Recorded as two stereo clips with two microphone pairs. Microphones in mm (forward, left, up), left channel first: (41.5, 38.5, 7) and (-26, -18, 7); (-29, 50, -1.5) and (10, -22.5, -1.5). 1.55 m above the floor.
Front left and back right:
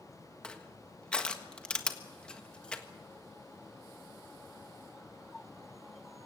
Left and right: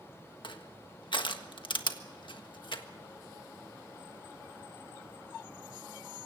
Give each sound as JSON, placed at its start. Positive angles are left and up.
{"t": 0.4, "sound": "crushing", "azimuth_deg": 120, "distance_m": 1.5}